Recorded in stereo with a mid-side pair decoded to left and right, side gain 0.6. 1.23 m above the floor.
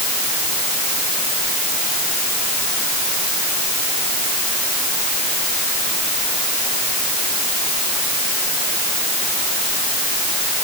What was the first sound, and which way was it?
Only background noise.